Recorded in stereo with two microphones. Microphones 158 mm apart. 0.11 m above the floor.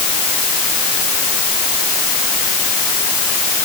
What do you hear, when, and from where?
Only background noise.